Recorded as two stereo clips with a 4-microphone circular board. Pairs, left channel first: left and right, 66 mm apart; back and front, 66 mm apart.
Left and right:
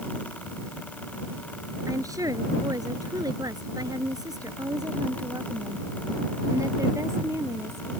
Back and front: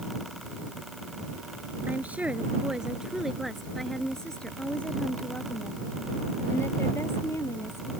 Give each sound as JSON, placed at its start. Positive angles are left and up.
{"t": 1.9, "sound": "a woman speaking", "azimuth_deg": -65}